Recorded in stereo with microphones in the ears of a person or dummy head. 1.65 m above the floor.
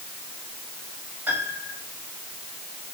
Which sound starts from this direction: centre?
A piano, at 1.3 s.